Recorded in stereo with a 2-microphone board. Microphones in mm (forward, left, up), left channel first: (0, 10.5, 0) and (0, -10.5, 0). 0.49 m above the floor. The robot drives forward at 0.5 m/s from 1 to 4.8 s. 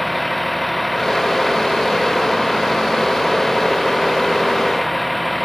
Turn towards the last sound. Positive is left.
turn(degrees=0)  # may be behind; listen again after turning